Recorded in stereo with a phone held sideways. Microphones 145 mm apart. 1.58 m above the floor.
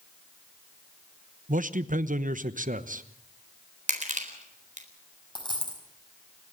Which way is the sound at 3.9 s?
55° right (ahead or behind).